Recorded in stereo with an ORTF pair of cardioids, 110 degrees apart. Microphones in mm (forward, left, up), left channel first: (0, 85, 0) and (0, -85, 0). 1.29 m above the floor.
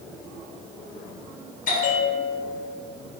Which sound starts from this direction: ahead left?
A bell, at 1.7 s.